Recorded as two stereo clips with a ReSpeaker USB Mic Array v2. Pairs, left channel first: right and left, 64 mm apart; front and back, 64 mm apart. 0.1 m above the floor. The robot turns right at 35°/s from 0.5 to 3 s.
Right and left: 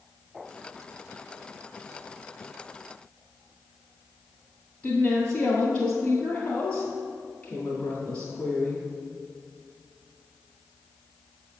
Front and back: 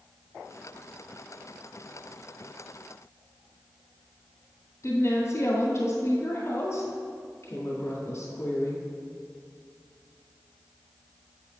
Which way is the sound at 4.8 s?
20° right.